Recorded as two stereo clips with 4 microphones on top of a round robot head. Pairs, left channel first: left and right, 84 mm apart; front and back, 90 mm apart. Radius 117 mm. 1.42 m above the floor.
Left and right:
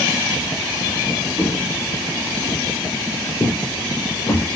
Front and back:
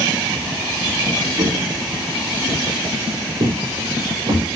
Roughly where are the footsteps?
Behind.